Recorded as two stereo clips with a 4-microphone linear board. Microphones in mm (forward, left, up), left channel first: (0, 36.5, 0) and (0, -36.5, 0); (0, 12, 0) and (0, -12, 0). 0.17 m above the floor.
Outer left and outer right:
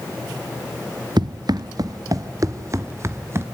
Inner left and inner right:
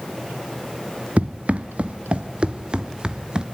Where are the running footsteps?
75° right (ahead or behind), 0.9 m; by 3.5 s 35° right (ahead or behind), 1.7 m.